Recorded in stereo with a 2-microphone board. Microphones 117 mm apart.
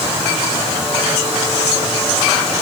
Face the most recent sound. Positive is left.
No sound to turn to.